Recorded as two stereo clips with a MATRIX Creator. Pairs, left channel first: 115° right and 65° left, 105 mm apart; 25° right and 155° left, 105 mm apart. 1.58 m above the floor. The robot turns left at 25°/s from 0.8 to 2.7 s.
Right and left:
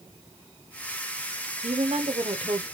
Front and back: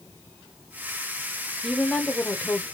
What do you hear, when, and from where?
1.6 s a woman speaking: 65° left, 0.9 m; by 2.6 s 40° left, 0.9 m